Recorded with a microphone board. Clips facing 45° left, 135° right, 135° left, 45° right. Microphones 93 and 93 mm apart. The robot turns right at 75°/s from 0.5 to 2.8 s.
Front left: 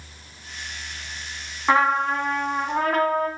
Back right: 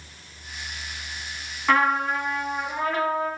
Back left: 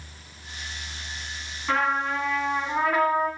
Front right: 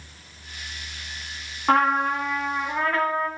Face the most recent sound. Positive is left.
turn(degrees=60)